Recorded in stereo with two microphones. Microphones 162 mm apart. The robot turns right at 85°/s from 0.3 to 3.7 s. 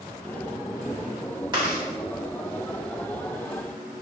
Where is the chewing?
30° right (ahead or behind), 1.1 m; by 1.8 s 5° right (ahead or behind), 1.1 m.